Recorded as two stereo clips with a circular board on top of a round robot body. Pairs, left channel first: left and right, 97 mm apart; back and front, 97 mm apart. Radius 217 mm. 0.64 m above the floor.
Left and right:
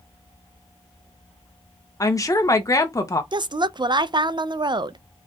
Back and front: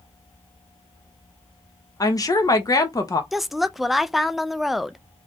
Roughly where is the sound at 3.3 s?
Right.